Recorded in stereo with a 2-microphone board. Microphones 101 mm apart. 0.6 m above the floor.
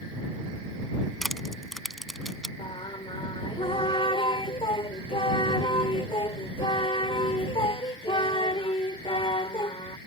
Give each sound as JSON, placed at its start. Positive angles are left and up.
{"t": 1.2, "sound": "crushing", "side_deg": 0}
{"t": 2.6, "sound": "singing", "side_deg": 55}